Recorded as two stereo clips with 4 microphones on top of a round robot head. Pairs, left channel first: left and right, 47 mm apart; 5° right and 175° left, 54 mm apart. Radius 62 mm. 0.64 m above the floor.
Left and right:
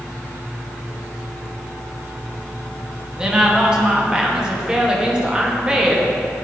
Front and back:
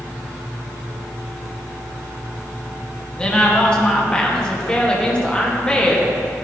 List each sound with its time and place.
3.2 s a woman speaking: 50° right, 1.0 m